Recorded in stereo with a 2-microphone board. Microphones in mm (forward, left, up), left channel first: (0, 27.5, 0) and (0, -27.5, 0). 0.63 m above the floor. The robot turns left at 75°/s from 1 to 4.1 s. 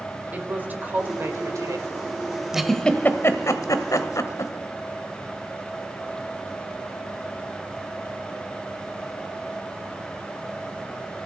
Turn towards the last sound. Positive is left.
turn(degrees=70)  # may be behind; listen again after turning